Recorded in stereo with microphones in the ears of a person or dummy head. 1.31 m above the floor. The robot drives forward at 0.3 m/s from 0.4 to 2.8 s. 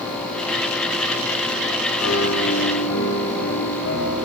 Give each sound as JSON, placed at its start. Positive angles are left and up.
{"t": 2.0, "sound": "a piano", "side_deg": 85, "distance_m": 8.5}